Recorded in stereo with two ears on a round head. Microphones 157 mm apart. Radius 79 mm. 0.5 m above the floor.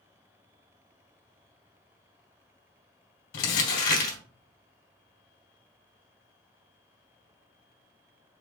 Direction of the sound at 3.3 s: 60° left (ahead or behind).